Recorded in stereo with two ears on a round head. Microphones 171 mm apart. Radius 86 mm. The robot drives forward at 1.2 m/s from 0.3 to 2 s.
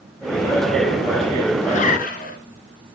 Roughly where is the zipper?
Left.